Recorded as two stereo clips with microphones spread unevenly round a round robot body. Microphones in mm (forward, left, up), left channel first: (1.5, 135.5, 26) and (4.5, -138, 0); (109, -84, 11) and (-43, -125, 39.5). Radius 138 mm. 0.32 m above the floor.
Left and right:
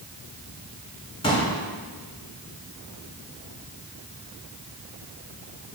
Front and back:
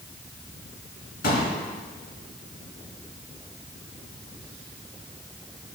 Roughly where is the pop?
Ahead.